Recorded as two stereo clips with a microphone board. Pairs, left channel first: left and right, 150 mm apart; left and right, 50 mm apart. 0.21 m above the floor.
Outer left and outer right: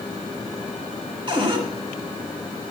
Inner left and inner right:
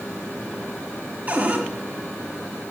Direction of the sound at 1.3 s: 35° right (ahead or behind).